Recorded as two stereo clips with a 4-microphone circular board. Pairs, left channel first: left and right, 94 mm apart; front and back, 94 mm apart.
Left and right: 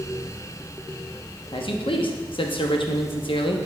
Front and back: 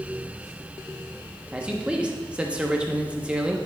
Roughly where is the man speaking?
Left.